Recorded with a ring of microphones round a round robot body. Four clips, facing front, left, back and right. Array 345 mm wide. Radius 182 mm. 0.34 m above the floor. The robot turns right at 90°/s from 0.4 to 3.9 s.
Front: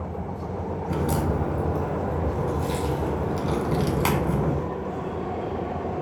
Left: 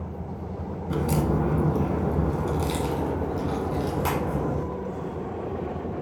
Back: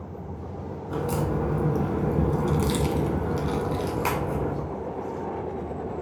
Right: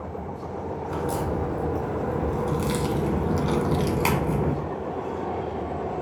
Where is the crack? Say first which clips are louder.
Left 3 dB, front 1 dB; 35° left, 1.4 m; by 4.5 s 55° right, 1.4 m.